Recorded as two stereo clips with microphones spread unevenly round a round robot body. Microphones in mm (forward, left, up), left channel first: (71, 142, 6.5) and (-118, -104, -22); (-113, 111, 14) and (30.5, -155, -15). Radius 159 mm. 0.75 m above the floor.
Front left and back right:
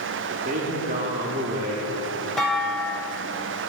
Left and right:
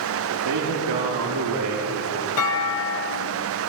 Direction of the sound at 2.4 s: 135° left.